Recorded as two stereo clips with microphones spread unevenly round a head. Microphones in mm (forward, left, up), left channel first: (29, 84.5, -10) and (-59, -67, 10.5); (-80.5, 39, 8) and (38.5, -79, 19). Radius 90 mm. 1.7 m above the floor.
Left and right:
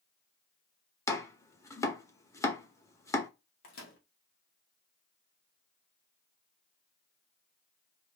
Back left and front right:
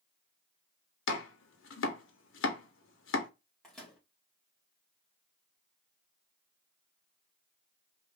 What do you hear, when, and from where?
1.1 s chopping: 135° left, 0.8 m
3.6 s a microwave: 45° left, 1.2 m